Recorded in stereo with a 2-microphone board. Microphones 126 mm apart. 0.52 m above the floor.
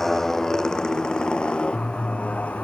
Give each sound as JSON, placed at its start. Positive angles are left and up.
{"t": 0.0, "sound": "a motorcycle", "side_deg": 5}